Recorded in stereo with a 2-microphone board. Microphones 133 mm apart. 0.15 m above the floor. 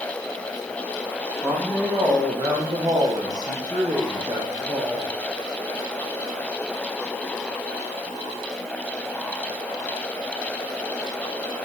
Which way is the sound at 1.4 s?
15° right (ahead or behind).